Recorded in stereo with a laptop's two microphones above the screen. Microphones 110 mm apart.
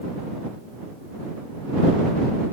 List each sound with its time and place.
Only background noise.